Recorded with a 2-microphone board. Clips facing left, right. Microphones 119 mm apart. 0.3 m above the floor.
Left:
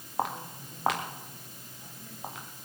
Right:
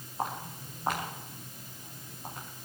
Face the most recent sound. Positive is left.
turn(degrees=85)